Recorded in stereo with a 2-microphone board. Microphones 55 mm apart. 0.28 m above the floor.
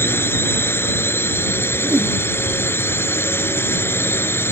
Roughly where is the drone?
Left.